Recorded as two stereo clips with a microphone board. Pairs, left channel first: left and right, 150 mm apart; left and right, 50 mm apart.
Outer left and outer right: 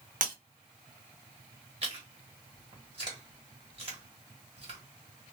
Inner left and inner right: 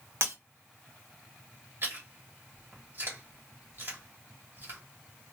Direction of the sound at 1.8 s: 40° right (ahead or behind).